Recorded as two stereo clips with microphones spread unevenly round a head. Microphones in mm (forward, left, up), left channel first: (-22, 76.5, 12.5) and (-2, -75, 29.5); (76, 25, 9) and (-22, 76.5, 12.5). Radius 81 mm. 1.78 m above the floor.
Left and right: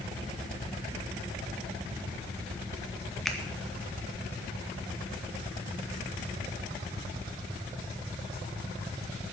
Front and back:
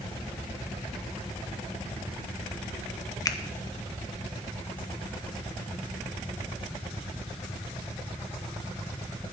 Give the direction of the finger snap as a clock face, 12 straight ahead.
12 o'clock.